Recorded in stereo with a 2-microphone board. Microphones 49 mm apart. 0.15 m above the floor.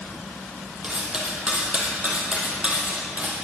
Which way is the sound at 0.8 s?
20° right (ahead or behind).